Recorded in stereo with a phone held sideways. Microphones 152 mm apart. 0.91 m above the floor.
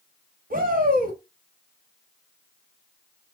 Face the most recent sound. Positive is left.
turn(degrees=-70)  # may be behind; listen again after turning